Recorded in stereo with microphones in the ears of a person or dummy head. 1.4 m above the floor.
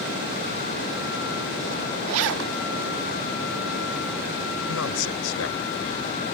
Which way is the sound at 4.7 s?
80° left.